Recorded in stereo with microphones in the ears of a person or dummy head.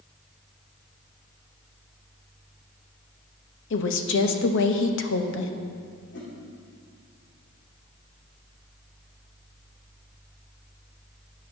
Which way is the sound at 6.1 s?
55° left (ahead or behind).